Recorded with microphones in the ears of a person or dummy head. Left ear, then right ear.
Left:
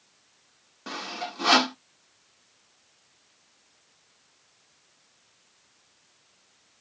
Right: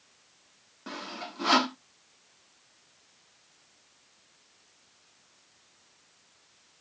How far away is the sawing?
About 0.6 m.